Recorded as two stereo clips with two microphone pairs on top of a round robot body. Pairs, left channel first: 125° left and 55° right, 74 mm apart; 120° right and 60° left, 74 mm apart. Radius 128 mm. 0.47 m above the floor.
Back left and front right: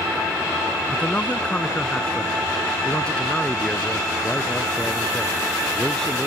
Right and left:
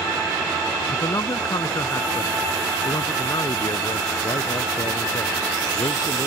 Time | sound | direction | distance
0.9 | a man speaking | 165° right | ?